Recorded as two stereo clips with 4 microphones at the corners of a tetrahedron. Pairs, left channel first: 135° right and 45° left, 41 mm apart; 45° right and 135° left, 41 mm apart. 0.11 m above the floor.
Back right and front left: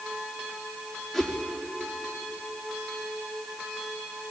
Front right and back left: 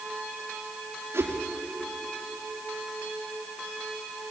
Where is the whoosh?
140° left, 5.5 m.